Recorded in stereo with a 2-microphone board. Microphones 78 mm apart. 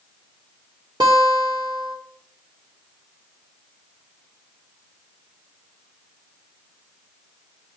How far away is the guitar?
About 3.5 m.